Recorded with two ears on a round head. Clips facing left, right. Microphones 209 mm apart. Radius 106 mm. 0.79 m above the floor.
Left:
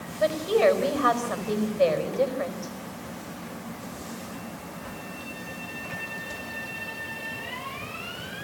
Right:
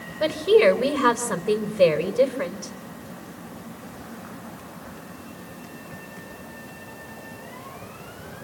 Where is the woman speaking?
75° right (ahead or behind), 4 m.